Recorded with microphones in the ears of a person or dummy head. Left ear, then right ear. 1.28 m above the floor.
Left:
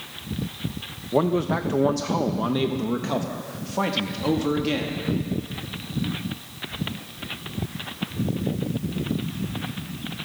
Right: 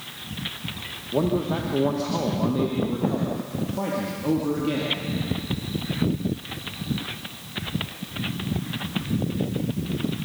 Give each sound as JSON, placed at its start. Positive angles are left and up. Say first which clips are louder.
{"t": 1.1, "sound": "a man speaking", "louder": "left 2 dB", "side_deg": 60, "distance_m": 0.9}